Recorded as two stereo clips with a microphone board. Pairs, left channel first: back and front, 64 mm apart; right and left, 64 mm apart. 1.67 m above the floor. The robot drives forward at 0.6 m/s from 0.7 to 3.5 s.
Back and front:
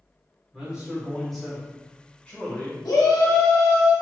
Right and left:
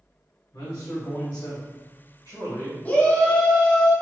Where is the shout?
155° right, 0.9 m; by 3.9 s 165° right, 1.2 m.